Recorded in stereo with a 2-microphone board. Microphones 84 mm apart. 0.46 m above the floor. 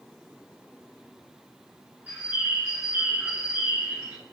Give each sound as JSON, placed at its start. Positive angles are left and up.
{"t": 2.1, "sound": "a bird", "side_deg": -20, "distance_m": 1.7}